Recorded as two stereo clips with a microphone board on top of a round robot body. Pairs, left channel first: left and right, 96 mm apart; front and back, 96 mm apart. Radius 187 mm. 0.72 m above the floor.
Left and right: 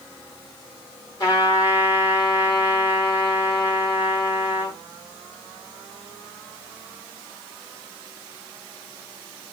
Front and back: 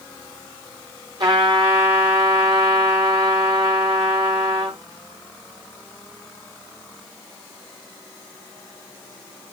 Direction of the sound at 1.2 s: 135° left.